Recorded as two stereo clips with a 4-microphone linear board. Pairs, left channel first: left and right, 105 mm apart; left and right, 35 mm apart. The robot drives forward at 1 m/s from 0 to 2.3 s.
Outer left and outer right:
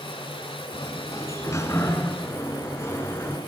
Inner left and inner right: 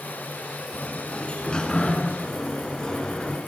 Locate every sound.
0.7 s a sliding door: 35° left (ahead or behind), 3 m; by 3.4 s 25° left (ahead or behind), 4 m